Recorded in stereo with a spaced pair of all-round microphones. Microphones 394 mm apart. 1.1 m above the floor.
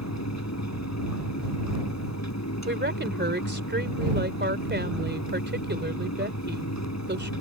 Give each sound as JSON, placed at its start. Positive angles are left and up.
{"t": 0.0, "sound": "a fan", "side_deg": 45}
{"t": 2.6, "sound": "a woman speaking", "side_deg": -25}